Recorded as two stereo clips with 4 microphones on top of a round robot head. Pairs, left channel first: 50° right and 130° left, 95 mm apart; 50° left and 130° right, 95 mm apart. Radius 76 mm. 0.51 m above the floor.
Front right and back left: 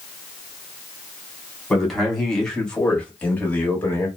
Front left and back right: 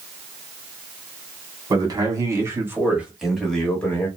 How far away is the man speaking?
About 1.5 m.